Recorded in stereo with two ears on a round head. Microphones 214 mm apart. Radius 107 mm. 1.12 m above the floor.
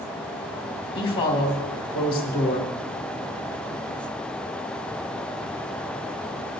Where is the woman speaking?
25° left (ahead or behind), 3 m.